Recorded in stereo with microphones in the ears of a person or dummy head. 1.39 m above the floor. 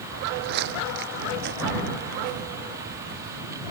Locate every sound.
0.1 s footsteps: 60° right (ahead or behind)